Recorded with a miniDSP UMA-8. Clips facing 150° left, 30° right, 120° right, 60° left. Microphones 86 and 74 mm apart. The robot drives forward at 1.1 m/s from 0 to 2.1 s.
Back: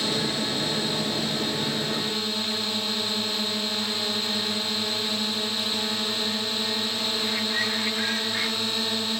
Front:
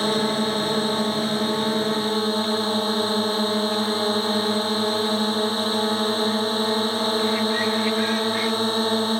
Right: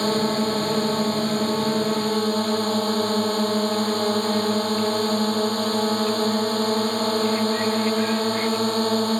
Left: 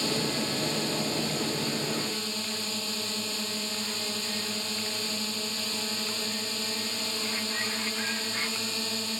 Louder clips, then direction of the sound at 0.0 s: Front 6 dB, right 9 dB; 80° right.